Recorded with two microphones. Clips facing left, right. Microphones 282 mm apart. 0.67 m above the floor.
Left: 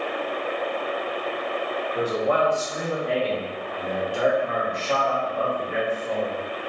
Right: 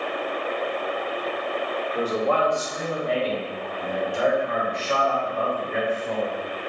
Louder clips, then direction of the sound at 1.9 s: Even; 10° left (ahead or behind).